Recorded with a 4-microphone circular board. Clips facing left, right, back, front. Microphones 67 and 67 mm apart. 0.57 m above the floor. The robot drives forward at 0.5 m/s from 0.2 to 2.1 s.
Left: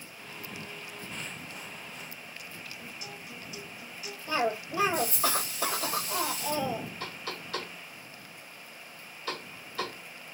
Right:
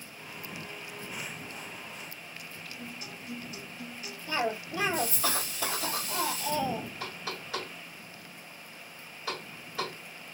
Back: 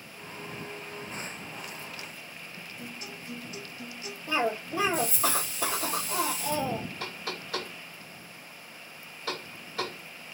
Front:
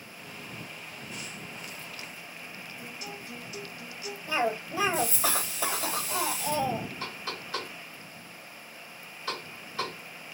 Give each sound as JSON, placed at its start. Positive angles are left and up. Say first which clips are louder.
{"t": 2.8, "sound": "a guitar", "louder": "right 1 dB, even", "azimuth_deg": -140, "distance_m": 2.0}
{"t": 4.3, "sound": "a cough", "louder": "left 2 dB, even", "azimuth_deg": 160, "distance_m": 1.3}
{"t": 7.0, "sound": "knocking", "louder": "even, even", "azimuth_deg": -165, "distance_m": 1.9}